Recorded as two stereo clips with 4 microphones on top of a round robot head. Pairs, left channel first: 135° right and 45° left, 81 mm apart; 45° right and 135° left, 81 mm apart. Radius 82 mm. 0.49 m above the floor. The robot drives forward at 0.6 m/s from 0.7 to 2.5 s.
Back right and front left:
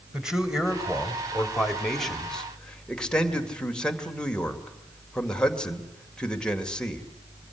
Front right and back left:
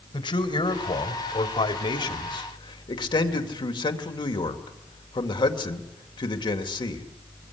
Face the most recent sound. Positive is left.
turn(degrees=-55)